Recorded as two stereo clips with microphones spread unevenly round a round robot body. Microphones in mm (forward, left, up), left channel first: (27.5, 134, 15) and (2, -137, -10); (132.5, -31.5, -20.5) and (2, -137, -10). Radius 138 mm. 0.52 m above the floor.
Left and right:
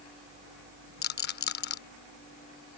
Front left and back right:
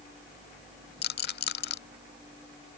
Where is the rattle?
30° left.